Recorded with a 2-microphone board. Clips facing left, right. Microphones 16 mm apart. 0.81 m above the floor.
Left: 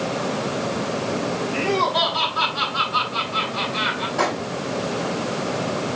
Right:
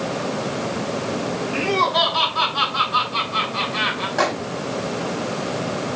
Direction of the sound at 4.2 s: 60° right (ahead or behind).